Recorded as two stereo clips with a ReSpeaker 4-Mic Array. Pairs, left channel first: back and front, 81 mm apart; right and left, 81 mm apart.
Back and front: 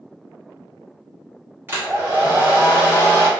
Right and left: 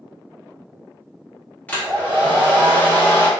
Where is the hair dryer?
40° right, 1.0 m.